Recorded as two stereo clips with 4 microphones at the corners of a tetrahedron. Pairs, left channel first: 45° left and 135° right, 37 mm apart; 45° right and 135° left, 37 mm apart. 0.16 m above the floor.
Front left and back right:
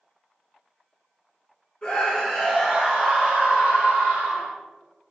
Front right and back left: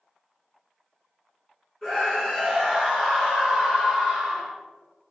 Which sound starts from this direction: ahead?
A scream, at 1.8 s.